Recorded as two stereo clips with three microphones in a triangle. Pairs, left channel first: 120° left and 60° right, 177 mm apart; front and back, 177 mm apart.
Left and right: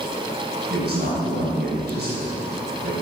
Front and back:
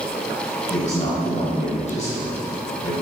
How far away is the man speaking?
About 3 m.